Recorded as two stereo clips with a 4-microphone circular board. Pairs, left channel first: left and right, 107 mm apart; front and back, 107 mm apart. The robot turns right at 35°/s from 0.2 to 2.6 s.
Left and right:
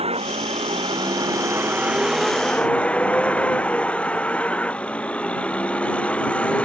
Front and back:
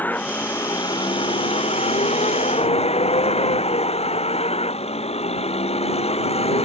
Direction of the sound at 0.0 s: 75° right.